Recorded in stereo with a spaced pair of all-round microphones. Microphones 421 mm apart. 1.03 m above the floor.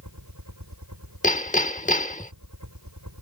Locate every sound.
0.0 s a helicopter: 40° right (ahead or behind)
1.2 s hammering: 15° left (ahead or behind)